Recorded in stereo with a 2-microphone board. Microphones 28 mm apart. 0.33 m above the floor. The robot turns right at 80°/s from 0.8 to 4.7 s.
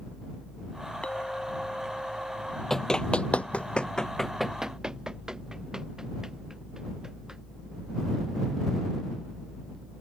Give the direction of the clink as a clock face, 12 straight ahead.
8 o'clock.